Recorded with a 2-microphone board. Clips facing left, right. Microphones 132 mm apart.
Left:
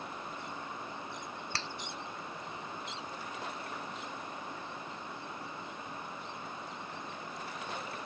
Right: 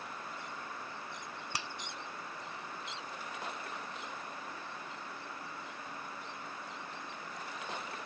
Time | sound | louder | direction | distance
1.5 | a finger snap | even | 15° right (ahead or behind) | ?